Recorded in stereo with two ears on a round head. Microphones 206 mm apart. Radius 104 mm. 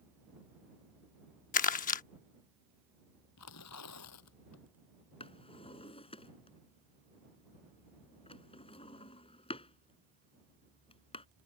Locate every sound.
1.5 s crumpling: 35° left (ahead or behind)
3.4 s tearing paper: 85° left
5.2 s a drawer: 25° left (ahead or behind)